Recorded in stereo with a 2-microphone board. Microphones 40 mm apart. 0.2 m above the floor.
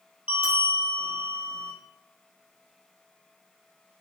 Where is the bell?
30° right (ahead or behind), 2 m.